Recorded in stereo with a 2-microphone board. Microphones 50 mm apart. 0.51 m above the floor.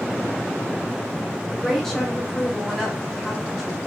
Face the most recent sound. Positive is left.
turn(degrees=5)  # may be behind; listen again after turning